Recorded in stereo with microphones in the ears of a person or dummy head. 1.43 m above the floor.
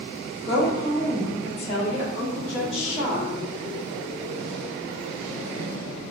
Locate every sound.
0.5 s a woman speaking: 50° left (ahead or behind), 1.8 m